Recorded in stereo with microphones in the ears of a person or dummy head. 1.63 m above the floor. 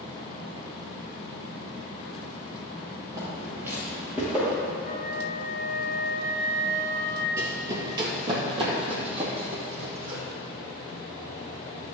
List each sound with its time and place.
3.2 s footsteps: 25° right (ahead or behind), 2.5 m; by 4.6 s 10° right (ahead or behind), 3 m
4.8 s a flute: 35° left (ahead or behind), 1.5 m
7.4 s running footsteps: 25° right (ahead or behind), 1.7 m; by 10.2 s 45° right (ahead or behind), 4 m